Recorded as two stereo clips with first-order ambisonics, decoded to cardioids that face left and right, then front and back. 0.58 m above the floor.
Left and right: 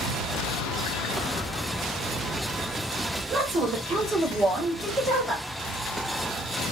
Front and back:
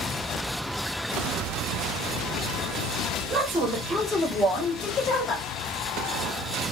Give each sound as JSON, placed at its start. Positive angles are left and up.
{"t": 3.3, "sound": "a woman speaking", "azimuth_deg": -115, "distance_m": 1.0}